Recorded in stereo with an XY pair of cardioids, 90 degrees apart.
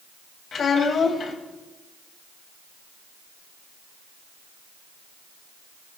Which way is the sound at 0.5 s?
60° left.